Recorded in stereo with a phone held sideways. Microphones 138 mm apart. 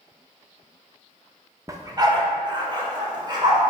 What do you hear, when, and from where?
1.7 s a dog barking: 25° right (ahead or behind), 0.5 m; by 3.7 s 30° right (ahead or behind), 1.6 m